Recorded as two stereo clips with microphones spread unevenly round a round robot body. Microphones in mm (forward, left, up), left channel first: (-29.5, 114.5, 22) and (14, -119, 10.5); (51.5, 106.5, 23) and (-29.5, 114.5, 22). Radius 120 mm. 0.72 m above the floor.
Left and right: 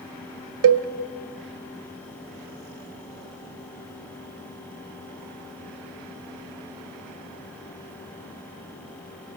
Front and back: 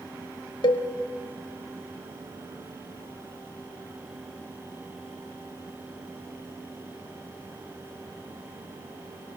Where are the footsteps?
I don't hear footsteps.